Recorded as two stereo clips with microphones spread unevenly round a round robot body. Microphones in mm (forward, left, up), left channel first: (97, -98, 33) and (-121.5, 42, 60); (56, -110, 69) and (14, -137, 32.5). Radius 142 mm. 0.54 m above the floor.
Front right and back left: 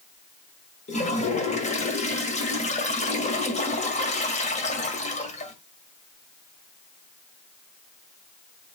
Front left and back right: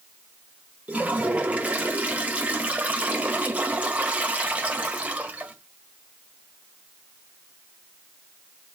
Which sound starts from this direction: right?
A toilet flushing, at 0.9 s.